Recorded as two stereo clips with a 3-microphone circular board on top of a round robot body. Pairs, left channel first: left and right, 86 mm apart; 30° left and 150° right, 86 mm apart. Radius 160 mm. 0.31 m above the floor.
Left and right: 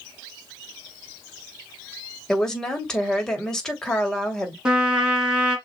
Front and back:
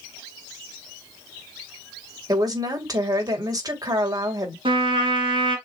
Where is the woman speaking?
170° left, 2.5 m.